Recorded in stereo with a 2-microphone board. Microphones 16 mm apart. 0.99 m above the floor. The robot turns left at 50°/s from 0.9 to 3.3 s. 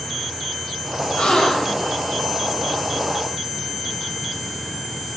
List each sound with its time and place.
1.2 s a gasp: 70° left, 1.9 m; by 1.9 s 35° left, 1.9 m